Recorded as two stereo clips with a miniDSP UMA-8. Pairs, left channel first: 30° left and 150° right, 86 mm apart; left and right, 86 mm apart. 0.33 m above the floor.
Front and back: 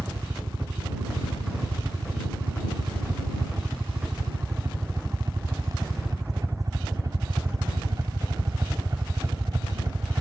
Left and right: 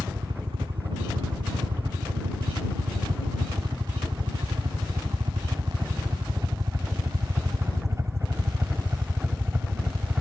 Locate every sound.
0.0 s a helicopter: 100° right; by 10.2 s 150° right